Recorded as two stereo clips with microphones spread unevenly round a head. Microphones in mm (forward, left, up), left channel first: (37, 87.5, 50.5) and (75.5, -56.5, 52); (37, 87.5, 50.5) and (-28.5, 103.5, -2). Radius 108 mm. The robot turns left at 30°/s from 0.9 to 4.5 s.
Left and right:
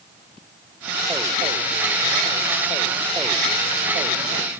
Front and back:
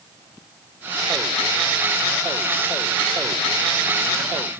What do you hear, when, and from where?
Only background noise.